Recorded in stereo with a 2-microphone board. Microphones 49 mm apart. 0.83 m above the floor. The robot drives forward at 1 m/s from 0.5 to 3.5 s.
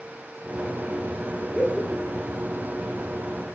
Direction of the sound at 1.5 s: 10° left (ahead or behind).